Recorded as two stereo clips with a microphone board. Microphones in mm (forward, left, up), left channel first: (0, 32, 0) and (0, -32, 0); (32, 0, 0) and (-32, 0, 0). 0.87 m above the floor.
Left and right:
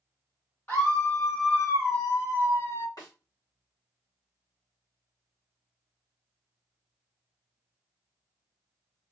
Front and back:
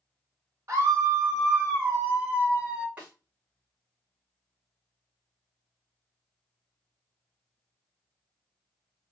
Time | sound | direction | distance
0.7 | a scream | 145° left | 1.8 m
3.0 | a snare drum | 110° left | 2.5 m